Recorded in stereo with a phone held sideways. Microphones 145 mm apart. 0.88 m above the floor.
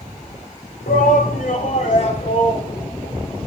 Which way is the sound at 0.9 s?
75° left (ahead or behind).